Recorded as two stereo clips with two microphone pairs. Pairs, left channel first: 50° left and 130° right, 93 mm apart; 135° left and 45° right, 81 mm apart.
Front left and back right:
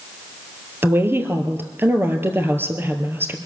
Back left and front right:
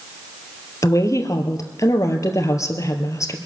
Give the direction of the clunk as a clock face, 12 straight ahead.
I don't hear a clunk.